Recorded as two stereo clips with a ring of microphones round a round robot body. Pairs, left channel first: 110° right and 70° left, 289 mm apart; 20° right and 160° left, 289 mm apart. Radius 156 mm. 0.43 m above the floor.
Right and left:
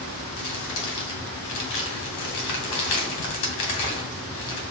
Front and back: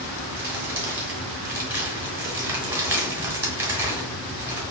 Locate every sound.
0.4 s crumpling: 120° right, 1.5 m